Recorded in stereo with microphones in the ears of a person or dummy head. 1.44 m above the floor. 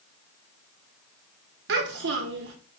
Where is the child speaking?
65° right (ahead or behind), 1.7 m.